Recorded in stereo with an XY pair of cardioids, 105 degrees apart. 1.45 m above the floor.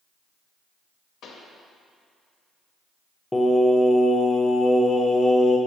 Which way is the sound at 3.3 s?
15° left.